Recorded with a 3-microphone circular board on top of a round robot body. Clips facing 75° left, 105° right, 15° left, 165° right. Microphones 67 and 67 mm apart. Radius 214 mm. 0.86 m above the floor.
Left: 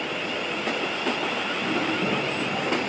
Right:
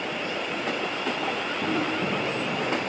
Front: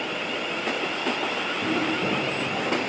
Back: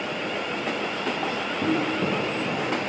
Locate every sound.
1.6 s footsteps: straight behind, 5 m; by 2.7 s 170° left, 4.5 m